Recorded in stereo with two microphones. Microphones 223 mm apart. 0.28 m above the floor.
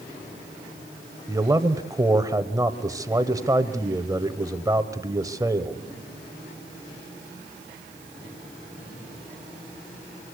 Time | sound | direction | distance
1.3 | a man speaking | 15° right (ahead or behind) | 1.2 m